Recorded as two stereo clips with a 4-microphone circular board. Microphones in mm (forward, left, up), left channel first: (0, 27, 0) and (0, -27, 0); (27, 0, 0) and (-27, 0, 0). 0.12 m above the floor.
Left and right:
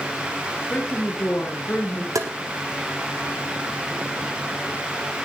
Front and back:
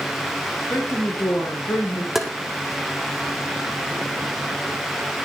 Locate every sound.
0.7 s a woman speaking: 35° left, 3 m
2.1 s tapping: 95° right, 1.4 m